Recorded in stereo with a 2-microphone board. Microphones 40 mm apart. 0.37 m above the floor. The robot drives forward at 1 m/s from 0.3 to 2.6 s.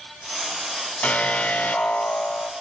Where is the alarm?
35° left (ahead or behind), 2.5 m; by 2.5 s 55° left (ahead or behind), 1.7 m.